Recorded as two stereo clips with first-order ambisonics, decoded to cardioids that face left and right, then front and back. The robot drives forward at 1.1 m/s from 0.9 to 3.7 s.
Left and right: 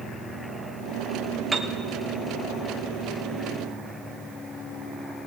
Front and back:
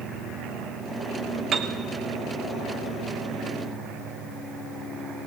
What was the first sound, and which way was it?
A piano, 155° right.